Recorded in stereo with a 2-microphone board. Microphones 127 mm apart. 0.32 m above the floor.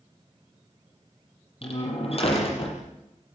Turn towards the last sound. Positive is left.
turn(degrees=50)  # may be behind; listen again after turning